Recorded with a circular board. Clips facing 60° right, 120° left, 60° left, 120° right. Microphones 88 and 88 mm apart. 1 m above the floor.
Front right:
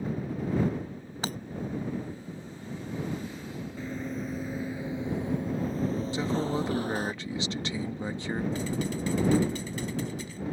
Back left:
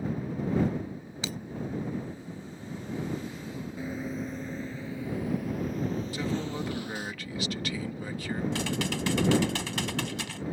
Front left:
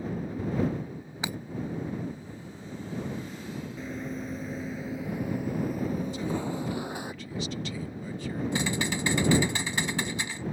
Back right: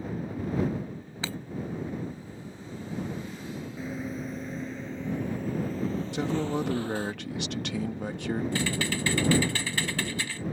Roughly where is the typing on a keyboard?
Behind left.